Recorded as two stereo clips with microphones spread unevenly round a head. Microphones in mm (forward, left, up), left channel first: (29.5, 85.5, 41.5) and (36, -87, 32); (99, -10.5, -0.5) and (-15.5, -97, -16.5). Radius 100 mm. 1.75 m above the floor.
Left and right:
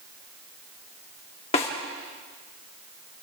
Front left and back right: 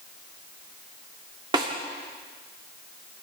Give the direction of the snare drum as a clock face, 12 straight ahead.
7 o'clock.